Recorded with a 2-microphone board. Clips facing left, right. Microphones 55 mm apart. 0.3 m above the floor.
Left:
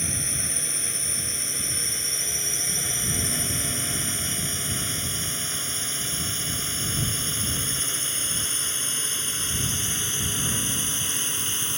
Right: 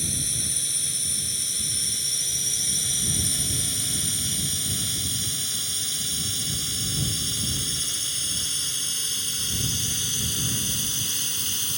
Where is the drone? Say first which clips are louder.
Left 2 dB; 35° left (ahead or behind); by 11.8 s 25° left (ahead or behind).